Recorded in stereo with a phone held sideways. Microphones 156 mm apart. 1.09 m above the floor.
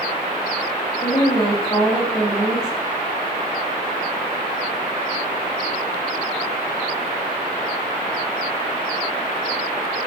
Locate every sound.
1.0 s a woman speaking: 15° left (ahead or behind), 4.5 m